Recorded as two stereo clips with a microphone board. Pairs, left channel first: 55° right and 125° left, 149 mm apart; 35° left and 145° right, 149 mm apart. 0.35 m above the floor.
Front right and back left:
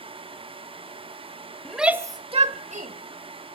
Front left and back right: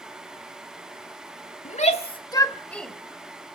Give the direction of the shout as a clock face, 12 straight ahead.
11 o'clock.